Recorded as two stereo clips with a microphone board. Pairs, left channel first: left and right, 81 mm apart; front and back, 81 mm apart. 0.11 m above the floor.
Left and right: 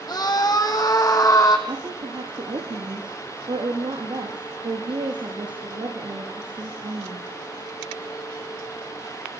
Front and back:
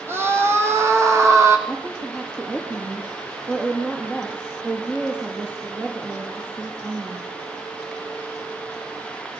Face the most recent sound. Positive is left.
turn(degrees=-105)